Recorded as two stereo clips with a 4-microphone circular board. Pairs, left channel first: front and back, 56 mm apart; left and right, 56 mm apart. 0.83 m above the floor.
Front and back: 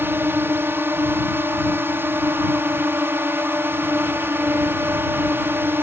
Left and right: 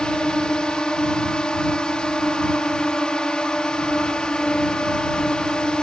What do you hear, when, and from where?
0.0 s a drone: 160° left